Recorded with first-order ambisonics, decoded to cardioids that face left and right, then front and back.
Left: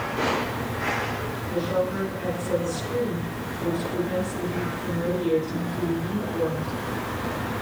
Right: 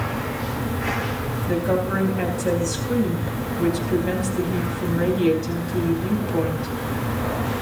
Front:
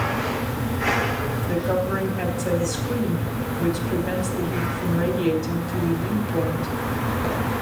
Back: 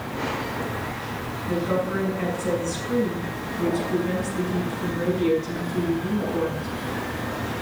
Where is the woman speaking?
50° right, 4 m.